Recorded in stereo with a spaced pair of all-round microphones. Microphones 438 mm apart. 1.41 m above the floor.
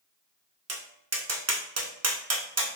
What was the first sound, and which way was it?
Tapping, 35° right (ahead or behind).